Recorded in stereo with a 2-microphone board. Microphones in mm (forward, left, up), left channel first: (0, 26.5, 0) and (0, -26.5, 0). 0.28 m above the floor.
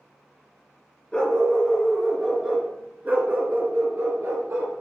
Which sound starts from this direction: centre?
A dog barking, at 1.1 s.